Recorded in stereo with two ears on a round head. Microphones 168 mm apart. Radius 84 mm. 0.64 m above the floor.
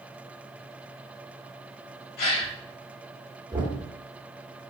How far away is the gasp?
About 2 m.